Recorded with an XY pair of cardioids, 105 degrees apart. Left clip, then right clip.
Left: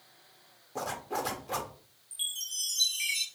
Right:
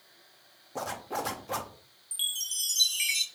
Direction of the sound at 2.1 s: 50° right.